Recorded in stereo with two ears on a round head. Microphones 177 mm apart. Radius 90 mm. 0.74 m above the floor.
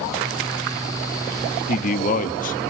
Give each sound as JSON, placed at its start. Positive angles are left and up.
{"t": 1.7, "sound": "a man speaking", "side_deg": 40, "distance_m": 1.4}